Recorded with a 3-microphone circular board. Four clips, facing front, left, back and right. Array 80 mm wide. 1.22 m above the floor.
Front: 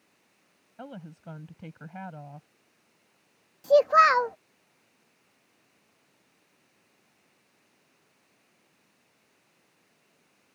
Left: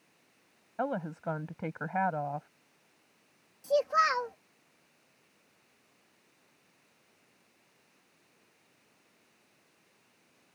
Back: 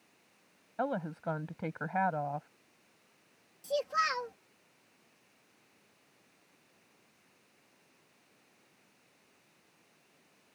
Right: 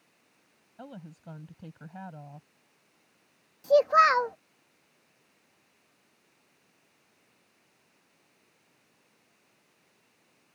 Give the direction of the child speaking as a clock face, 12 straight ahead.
1 o'clock.